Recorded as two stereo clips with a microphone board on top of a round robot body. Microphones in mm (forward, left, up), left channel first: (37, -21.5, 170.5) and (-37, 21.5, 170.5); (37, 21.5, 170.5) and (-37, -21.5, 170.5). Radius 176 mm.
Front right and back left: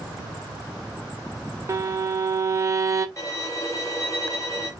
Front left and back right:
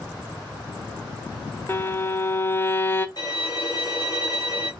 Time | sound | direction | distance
1.7 | a violin | 95° left | 0.6 m
3.2 | a violin | 15° left | 2.5 m